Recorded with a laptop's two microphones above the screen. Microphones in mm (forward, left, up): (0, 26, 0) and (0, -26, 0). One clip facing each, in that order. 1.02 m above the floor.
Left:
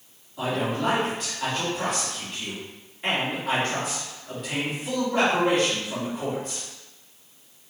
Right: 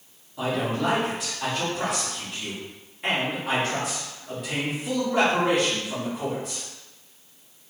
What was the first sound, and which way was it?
A man speaking, 5° right (ahead or behind).